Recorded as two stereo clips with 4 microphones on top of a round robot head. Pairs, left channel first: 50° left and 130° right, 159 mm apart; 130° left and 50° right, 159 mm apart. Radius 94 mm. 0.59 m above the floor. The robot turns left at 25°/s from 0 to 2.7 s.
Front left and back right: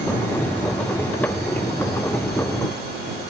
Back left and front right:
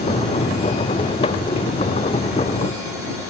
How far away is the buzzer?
I don't hear a buzzer.